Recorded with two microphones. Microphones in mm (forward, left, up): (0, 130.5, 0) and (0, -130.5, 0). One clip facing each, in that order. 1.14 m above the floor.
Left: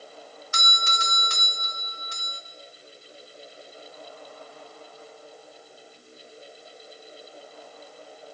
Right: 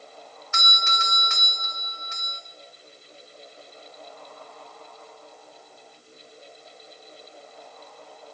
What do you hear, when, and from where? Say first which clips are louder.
0.5 s a doorbell: right 1 dB; 40° left (ahead or behind), 1.0 m